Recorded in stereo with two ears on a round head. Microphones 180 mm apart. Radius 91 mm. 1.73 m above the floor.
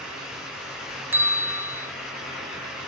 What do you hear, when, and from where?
1.1 s a bell: 10° right (ahead or behind), 0.5 m